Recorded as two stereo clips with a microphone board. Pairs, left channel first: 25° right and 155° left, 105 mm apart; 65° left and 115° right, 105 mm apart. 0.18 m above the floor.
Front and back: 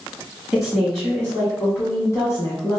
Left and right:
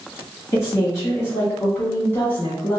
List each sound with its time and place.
0.5 s a woman speaking: 80° left, 1.6 m; by 2.8 s straight ahead, 1.9 m